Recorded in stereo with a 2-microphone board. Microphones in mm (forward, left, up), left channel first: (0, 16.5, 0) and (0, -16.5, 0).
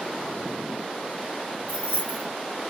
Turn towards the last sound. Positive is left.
turn(degrees=-40)  # may be behind; listen again after turning